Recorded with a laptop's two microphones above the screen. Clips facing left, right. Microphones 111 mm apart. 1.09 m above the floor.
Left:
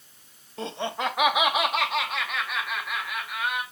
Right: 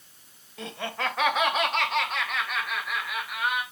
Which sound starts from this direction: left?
Laughter, at 0.6 s.